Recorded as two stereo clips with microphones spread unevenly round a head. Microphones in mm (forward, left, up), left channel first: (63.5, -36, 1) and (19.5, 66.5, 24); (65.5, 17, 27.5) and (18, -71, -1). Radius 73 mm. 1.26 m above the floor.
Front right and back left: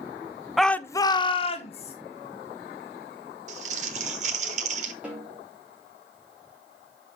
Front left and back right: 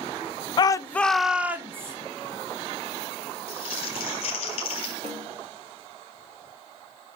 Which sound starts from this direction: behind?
A snare drum, at 5.0 s.